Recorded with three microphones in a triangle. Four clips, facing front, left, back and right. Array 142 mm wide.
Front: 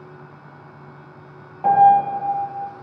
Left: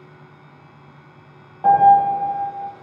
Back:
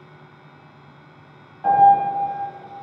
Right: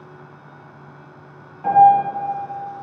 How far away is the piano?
About 2 m.